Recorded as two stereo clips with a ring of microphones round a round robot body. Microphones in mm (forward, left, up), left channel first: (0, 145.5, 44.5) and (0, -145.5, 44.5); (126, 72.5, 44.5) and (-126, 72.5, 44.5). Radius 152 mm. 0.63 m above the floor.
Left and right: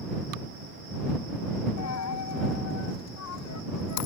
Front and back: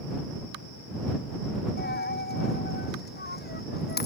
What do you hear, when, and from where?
1.8 s a dropped coin: 50° left